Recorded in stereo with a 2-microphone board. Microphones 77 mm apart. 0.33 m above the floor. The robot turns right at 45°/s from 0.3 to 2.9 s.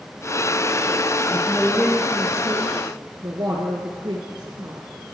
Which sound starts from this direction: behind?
A man speaking, at 1.3 s.